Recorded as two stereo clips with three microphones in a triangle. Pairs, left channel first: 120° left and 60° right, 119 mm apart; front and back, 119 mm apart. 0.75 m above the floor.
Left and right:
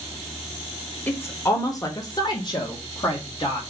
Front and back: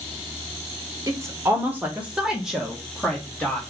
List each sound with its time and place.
1.1 s a woman speaking: 170° left, 1.1 m; by 3.6 s 85° left, 1.9 m